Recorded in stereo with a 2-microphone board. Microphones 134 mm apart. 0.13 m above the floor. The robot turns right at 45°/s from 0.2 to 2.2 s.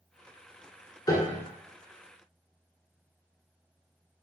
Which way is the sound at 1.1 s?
30° left (ahead or behind).